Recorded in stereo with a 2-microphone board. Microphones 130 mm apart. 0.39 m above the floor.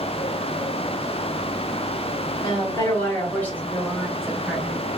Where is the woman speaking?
25° left (ahead or behind), 1.8 m; by 4.9 s 15° right (ahead or behind), 1.3 m.